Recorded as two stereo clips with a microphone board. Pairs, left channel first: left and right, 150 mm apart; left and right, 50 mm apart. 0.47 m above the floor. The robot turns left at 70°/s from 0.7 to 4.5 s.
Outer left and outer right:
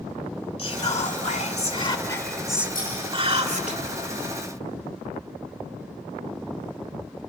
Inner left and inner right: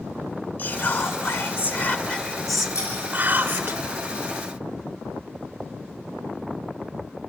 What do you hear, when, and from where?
0.6 s whispering: 125° left, 1.4 m; by 3.8 s 90° right, 1.4 m
2.8 s scissors: 75° left (ahead or behind), 9 m; by 2.9 s 65° left (ahead or behind), 9 m